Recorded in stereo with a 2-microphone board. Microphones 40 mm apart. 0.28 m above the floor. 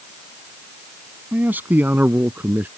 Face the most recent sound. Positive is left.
turn(degrees=-50)  # may be behind; listen again after turning